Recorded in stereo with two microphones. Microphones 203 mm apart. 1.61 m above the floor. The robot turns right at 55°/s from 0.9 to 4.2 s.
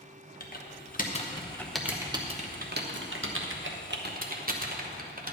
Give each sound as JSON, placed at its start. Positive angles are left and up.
{"t": 0.4, "sound": "typing on a keyboard", "side_deg": 45, "distance_m": 1.1}